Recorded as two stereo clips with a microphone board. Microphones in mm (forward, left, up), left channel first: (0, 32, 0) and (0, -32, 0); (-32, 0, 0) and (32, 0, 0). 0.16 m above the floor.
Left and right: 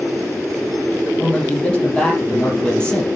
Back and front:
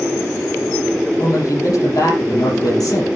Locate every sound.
1.2 s a man speaking: 165° left, 5 m